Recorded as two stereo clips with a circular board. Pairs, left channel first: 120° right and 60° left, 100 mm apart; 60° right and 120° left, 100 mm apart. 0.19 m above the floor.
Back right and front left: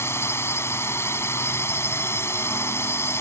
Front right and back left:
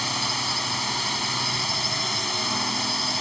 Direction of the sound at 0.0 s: 150° right.